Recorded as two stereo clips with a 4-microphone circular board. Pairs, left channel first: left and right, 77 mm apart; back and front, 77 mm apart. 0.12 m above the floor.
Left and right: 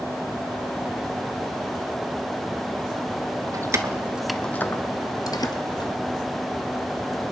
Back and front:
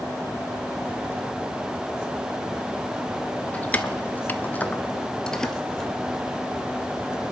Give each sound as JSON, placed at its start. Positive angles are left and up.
{"t": 3.5, "sound": "keys jangling", "azimuth_deg": -110, "distance_m": 1.2}